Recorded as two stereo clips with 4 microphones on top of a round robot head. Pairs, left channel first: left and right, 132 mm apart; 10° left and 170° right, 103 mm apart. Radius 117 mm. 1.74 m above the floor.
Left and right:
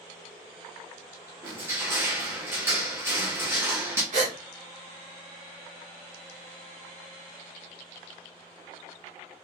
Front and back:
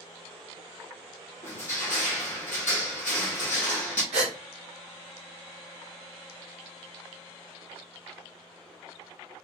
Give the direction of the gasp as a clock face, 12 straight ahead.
4 o'clock.